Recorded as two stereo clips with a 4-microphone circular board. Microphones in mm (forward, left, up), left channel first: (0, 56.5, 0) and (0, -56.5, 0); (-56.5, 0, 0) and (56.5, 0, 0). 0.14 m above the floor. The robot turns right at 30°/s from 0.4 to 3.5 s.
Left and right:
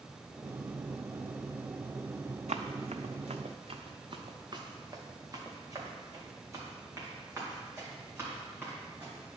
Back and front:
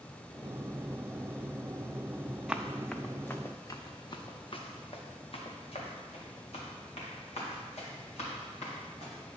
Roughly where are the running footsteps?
Right.